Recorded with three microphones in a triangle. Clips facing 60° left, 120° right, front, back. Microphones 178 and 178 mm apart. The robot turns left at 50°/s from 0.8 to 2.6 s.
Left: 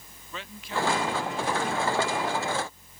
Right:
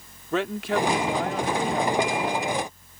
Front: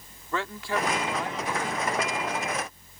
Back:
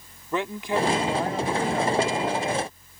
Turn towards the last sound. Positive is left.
turn(degrees=160)